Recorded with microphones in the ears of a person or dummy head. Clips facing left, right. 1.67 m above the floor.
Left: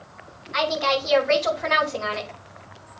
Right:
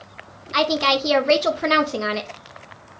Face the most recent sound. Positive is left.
turn(degrees=-60)  # may be behind; listen again after turning